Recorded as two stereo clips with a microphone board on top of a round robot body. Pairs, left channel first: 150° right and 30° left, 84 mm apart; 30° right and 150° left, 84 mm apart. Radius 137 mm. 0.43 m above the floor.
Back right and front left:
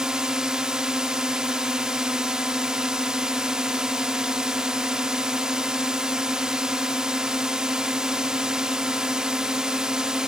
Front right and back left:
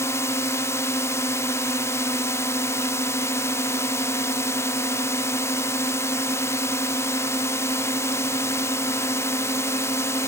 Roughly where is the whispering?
No whispering in this recording.